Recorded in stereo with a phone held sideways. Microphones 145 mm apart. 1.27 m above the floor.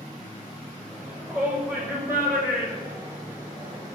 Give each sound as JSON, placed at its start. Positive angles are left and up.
{"t": 0.9, "sound": "a shout", "side_deg": -10, "distance_m": 8.0}